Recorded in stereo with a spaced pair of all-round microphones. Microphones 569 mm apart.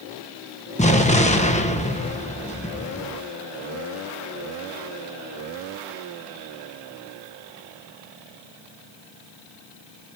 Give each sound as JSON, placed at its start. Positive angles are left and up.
{"t": 0.8, "sound": "an explosion", "side_deg": 10, "distance_m": 1.2}